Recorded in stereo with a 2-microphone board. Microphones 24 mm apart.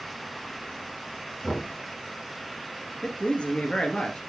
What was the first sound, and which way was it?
Knocking, 35° left (ahead or behind).